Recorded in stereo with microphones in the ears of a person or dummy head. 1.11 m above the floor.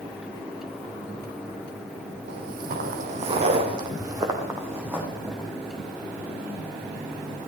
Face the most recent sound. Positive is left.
turn(degrees=-5)  # may be behind; listen again after turning